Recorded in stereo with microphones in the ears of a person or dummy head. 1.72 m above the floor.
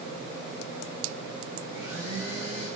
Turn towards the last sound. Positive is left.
turn(degrees=-30)  # may be behind; listen again after turning